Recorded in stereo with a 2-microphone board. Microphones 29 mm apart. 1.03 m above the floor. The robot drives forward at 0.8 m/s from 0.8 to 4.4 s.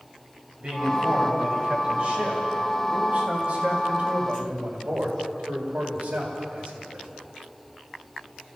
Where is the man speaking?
40° right (ahead or behind), 7 m; by 7.1 s 65° right (ahead or behind), 5 m.